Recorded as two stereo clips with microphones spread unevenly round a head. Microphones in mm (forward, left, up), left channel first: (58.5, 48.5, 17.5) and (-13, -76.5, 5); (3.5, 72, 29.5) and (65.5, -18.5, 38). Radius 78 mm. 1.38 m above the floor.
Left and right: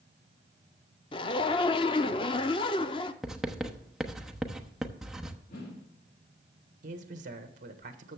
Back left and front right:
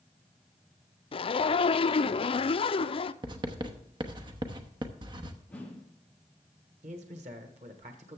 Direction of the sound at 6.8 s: 90° right.